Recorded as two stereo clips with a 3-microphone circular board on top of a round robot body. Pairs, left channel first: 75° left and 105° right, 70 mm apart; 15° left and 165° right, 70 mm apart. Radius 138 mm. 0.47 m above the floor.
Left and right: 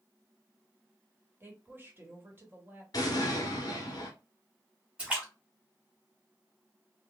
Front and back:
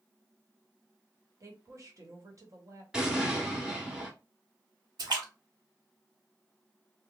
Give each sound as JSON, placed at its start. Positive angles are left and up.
{"t": 1.4, "sound": "a woman speaking", "azimuth_deg": -155, "distance_m": 1.4}
{"t": 2.9, "sound": "an explosion", "azimuth_deg": 115, "distance_m": 0.8}
{"t": 5.0, "sound": "a splash", "azimuth_deg": 180, "distance_m": 1.2}